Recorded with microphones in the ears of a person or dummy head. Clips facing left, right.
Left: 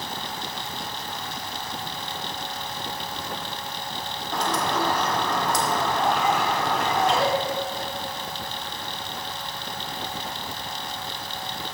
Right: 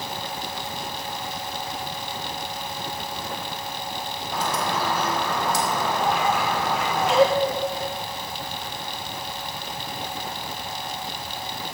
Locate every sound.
4.3 s a bird: 5° right (ahead or behind), 1.0 m